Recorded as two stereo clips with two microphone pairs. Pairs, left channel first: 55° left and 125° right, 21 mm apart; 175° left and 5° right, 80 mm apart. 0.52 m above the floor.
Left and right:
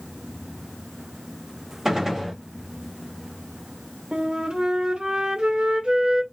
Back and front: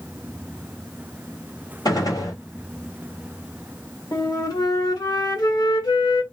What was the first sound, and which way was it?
A gunshot, 165° left.